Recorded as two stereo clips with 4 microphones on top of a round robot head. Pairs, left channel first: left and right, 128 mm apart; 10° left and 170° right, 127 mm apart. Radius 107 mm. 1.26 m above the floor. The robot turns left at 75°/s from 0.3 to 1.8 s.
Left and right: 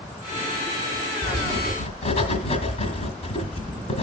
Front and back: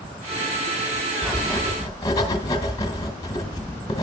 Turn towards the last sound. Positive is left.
turn(degrees=65)